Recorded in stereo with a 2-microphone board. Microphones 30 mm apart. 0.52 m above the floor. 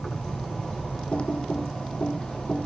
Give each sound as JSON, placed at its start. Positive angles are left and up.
{"t": 0.0, "sound": "an insect", "side_deg": 30, "distance_m": 9.0}
{"t": 1.1, "sound": "typing on a keyboard", "side_deg": 40, "distance_m": 1.4}